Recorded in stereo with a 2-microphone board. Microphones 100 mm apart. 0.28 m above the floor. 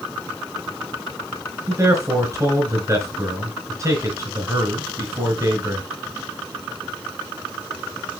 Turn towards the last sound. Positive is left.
turn(degrees=-30)  # may be behind; listen again after turning